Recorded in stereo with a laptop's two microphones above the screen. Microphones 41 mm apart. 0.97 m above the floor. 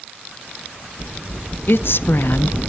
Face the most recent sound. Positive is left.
turn(degrees=60)  # may be behind; listen again after turning